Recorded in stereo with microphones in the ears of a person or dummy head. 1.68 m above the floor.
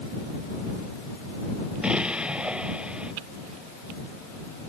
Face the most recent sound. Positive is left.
turn(degrees=0)  # may be behind; listen again after turning